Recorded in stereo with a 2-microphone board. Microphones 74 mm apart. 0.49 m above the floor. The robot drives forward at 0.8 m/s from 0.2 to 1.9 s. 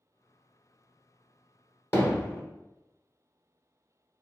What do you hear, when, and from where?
1.9 s hammering: 35° left (ahead or behind), 0.9 m